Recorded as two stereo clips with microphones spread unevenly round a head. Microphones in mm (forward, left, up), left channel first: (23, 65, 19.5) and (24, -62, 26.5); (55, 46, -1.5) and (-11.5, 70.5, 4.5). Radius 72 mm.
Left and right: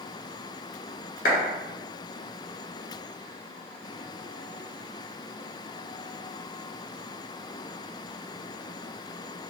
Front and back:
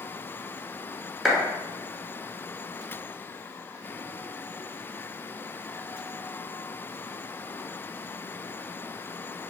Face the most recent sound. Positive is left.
turn(degrees=75)